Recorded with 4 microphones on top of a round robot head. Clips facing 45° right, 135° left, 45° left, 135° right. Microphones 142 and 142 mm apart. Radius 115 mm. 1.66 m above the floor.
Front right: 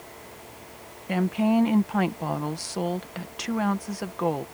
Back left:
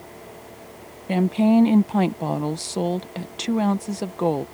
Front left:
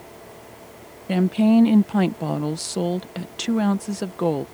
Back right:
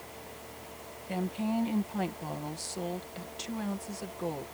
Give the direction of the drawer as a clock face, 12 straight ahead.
I don't hear a drawer.